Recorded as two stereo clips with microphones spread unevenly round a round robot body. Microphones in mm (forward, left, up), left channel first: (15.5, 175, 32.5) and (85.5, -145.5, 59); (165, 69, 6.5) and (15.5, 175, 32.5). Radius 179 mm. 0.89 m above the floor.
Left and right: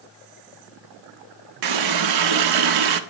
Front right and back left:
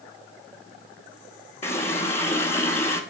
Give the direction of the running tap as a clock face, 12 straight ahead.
4 o'clock.